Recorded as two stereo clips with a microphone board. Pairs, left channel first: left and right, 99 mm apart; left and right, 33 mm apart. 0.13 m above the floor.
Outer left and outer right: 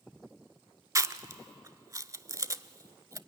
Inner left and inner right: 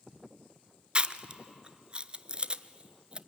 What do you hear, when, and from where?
0.9 s chewing: 35° right (ahead or behind), 0.5 m